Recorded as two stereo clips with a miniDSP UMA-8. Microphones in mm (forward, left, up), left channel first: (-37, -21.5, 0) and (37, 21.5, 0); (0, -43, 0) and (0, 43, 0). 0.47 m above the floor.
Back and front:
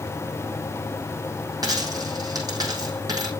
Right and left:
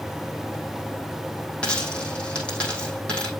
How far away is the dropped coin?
About 3.5 m.